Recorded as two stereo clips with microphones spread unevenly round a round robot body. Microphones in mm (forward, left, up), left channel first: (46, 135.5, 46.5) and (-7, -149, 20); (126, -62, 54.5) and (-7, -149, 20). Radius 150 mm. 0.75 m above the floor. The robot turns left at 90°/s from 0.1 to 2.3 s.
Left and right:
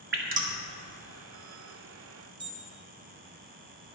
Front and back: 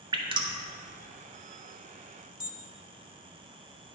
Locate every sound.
0.1 s dripping: 120° right, 1.2 m; by 0.6 s 160° right, 1.2 m
2.4 s an alarm: 40° right, 2 m